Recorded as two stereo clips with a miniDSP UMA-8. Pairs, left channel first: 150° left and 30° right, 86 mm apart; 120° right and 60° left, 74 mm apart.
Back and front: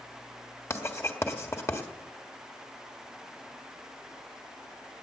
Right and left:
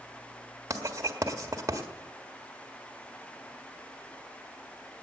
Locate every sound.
0.7 s writing: 100° left, 1.5 m